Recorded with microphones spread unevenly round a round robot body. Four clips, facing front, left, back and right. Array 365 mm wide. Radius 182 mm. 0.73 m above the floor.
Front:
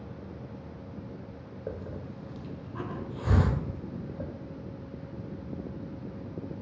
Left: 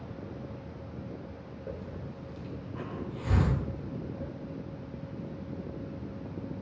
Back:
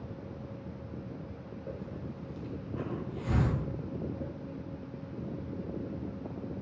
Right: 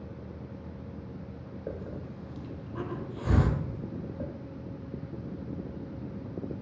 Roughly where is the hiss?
Ahead.